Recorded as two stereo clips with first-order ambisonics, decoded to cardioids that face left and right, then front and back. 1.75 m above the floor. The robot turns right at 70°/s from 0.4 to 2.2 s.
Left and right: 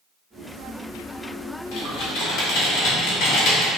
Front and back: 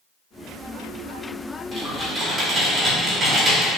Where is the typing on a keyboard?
80° left, 1.6 m; by 3.7 s 115° left, 1.6 m.